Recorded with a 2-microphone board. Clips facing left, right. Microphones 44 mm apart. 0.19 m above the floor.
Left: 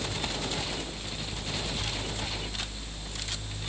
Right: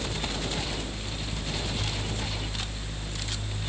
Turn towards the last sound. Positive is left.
No sound to turn to.